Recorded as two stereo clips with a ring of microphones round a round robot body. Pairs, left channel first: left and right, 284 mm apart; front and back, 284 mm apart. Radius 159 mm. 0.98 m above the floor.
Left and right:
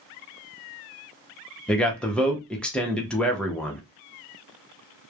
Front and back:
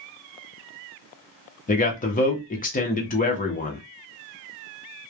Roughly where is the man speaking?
Ahead.